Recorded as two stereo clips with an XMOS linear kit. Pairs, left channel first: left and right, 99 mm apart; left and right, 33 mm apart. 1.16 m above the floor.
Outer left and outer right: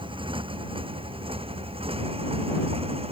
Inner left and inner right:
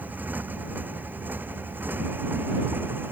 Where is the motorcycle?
60° right (ahead or behind); by 3.1 s 80° right.